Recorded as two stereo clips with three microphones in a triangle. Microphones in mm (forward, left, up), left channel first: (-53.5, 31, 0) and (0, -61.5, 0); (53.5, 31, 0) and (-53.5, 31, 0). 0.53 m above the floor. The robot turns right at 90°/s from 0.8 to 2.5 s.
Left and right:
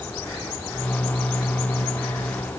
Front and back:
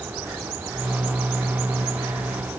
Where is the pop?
No pop in this recording.